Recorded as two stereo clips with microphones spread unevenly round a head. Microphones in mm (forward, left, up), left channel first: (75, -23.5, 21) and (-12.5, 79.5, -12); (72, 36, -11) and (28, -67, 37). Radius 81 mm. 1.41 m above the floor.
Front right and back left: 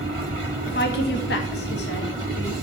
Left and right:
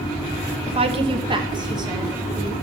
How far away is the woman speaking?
About 1.3 m.